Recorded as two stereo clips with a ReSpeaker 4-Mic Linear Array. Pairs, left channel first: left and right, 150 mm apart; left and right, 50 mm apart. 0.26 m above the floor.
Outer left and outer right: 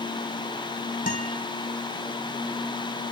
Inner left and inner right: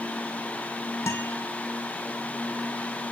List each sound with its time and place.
1.1 s a guitar: 65° left (ahead or behind), 2.5 m